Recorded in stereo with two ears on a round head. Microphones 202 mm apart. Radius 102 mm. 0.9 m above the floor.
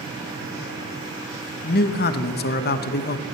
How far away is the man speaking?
About 0.7 m.